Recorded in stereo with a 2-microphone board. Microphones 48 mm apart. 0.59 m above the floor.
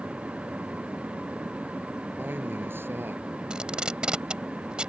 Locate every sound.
2.2 s a man speaking: 45° right (ahead or behind); by 3.2 s 55° right (ahead or behind)
3.5 s tape being pulled: 20° right (ahead or behind)